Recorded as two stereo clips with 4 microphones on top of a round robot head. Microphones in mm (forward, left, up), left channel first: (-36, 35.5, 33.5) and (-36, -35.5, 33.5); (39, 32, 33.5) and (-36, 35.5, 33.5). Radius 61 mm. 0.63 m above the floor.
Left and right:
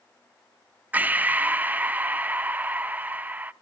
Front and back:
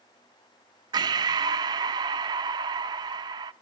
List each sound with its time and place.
0.9 s breathing: 155° right, 0.7 m